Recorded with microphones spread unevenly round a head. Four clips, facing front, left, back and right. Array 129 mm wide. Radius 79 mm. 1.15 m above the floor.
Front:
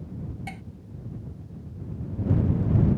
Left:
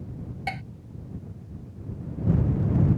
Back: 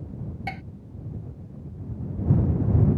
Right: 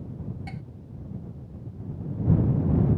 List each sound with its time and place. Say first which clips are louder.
0.5 s dishes clattering: left 7 dB, back 5 dB; 100° left